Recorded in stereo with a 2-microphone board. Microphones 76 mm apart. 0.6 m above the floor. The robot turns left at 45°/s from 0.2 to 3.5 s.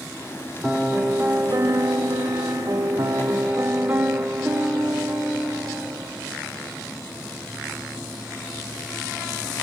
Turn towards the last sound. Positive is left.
turn(degrees=-145)